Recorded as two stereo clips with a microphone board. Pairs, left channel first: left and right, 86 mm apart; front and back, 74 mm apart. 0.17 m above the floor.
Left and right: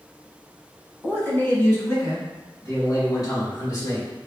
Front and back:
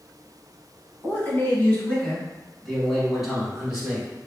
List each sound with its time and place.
1.0 s a man speaking: 35° left, 1.6 m; by 4.1 s 110° left, 2 m